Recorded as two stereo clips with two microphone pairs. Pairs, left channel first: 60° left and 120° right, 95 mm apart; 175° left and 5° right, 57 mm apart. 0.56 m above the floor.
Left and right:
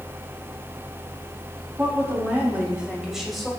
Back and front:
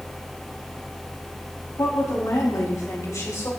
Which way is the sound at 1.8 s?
175° left.